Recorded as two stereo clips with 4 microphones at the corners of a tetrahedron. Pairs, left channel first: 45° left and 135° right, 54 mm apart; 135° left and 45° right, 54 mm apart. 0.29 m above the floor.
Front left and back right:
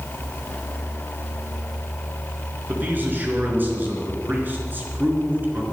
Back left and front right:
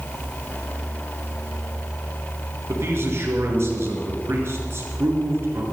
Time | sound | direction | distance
2.7 | a man speaking | 80° right | 4 m